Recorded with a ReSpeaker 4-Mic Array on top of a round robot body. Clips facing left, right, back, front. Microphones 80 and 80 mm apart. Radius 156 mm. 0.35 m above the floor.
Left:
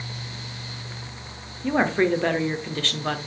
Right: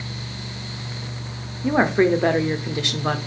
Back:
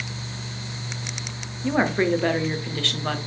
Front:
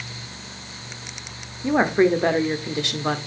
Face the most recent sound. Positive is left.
turn(degrees=-40)